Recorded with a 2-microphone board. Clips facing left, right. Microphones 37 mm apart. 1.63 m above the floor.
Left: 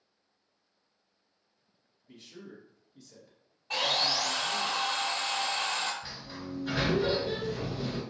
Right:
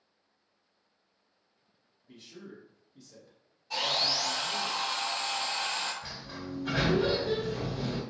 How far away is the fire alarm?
I don't hear a fire alarm.